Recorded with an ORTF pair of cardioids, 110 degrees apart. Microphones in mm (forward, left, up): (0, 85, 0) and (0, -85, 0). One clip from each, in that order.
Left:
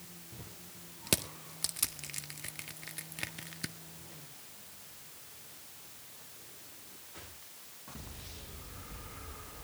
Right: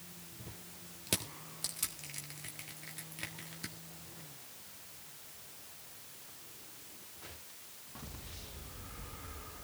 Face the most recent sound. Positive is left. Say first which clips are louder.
# left 4 dB
turn(degrees=25)